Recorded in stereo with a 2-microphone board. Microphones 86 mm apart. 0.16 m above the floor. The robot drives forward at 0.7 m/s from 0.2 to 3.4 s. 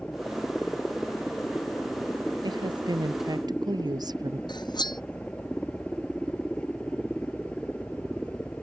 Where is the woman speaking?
60° right (ahead or behind); by 4.4 s 55° right (ahead or behind).